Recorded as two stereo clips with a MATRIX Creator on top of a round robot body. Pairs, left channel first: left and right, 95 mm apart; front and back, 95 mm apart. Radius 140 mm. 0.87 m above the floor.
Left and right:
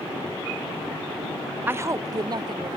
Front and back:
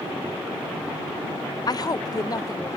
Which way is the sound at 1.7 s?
25° right.